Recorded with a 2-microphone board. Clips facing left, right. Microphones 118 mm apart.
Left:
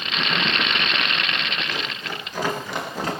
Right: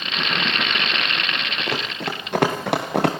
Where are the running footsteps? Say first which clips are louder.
Right 4 dB; 70° right (ahead or behind), 6 m.